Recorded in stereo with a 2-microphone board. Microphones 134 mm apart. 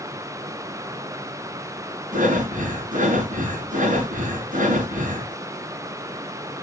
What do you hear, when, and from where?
2.1 s breathing: 80° right, 7.5 m